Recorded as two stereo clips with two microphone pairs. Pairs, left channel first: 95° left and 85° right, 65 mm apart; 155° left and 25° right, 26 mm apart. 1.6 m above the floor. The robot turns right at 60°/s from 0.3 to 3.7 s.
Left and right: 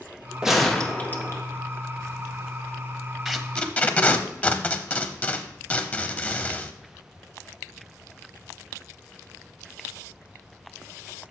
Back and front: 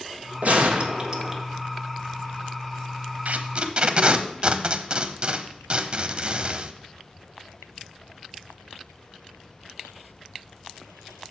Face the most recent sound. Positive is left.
turn(degrees=30)